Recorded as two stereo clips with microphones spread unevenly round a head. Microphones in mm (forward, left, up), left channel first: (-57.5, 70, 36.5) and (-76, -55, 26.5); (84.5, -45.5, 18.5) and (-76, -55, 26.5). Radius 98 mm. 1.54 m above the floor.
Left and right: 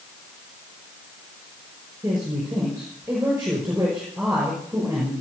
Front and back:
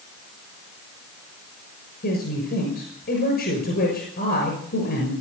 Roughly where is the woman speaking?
Ahead.